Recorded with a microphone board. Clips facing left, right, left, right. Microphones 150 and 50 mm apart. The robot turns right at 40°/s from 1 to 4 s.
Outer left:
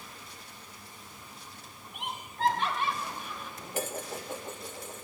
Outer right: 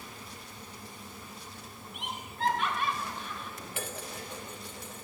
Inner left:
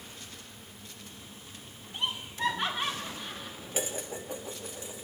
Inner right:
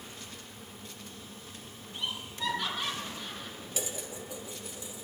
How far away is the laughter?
About 2.5 m.